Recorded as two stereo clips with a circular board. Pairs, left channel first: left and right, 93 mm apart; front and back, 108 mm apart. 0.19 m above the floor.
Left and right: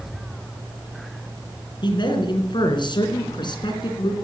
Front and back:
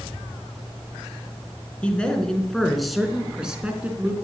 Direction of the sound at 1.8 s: 75° left.